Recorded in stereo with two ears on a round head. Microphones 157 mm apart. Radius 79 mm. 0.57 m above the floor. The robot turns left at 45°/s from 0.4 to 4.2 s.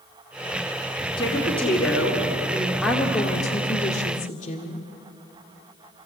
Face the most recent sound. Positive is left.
turn(degrees=120)